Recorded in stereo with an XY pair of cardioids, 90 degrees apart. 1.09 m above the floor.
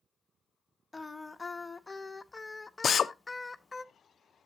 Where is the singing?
15° left, 0.9 m.